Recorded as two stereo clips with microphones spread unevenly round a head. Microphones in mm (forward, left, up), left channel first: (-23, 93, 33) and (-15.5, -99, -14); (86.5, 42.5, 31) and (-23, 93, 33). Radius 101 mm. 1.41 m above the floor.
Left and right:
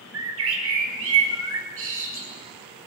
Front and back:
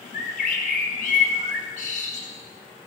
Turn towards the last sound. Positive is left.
turn(degrees=-65)